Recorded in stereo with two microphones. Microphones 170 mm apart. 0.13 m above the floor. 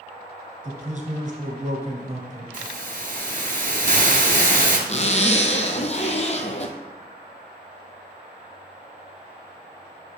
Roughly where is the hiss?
Right.